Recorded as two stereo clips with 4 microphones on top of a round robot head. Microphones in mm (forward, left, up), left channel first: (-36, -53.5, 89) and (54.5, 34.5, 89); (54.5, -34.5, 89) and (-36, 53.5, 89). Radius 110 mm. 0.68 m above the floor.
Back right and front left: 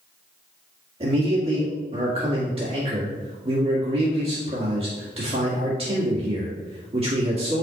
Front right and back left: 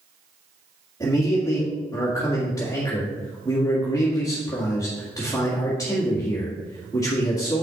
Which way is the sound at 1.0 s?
15° left.